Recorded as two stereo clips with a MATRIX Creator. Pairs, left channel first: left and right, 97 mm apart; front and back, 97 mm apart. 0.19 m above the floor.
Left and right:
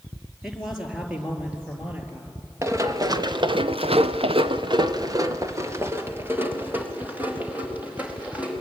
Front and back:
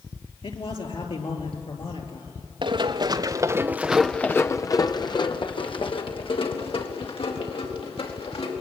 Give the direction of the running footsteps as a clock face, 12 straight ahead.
5 o'clock.